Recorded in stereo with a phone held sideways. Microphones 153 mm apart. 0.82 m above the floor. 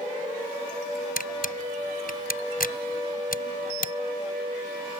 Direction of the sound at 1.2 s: 75° left (ahead or behind).